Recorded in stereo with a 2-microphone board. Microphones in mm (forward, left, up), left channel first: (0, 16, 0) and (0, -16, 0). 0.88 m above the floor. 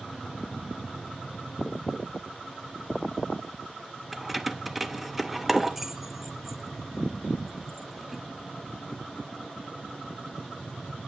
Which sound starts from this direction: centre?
Keys jangling, at 4.1 s.